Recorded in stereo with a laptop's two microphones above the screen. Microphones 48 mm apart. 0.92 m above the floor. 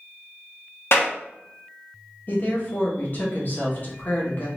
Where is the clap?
60° left (ahead or behind), 1.4 m.